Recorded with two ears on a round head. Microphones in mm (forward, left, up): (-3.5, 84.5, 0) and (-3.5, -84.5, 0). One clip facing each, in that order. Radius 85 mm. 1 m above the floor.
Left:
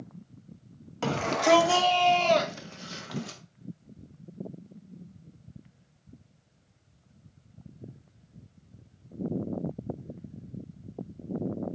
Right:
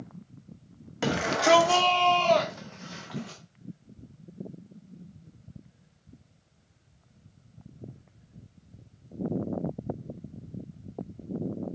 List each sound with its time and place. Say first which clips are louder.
1.0 s a shout: right 1 dB; 15° right (ahead or behind), 1.5 m; by 3.4 s 60° left (ahead or behind), 1.7 m